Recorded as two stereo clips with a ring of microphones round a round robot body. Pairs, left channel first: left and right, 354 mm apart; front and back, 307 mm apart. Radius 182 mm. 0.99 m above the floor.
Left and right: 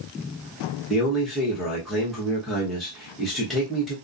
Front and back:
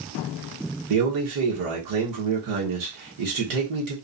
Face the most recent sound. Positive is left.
turn(degrees=180)